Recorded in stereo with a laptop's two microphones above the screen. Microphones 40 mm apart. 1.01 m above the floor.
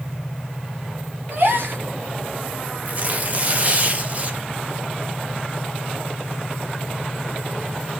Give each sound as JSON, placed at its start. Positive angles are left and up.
{"t": 1.3, "sound": "a gasp", "side_deg": -65, "distance_m": 2.5}
{"t": 2.9, "sound": "tearing paper", "side_deg": -40, "distance_m": 1.1}